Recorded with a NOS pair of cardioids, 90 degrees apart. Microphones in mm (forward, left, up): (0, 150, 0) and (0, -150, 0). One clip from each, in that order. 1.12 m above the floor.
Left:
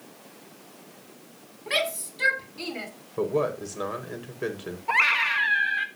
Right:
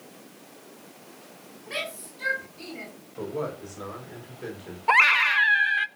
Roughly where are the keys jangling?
No keys jangling in this recording.